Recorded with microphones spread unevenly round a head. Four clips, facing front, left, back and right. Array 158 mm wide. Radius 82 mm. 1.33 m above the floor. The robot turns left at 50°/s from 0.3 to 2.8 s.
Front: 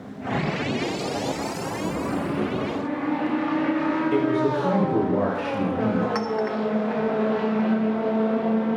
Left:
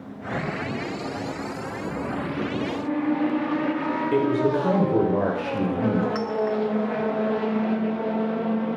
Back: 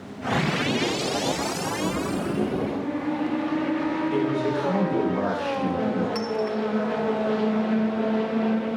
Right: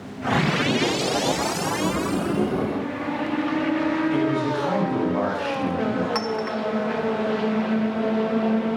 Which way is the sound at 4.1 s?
70° left.